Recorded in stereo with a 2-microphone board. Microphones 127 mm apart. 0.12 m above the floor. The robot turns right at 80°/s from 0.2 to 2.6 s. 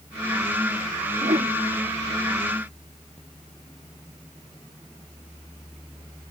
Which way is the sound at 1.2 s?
65° right (ahead or behind).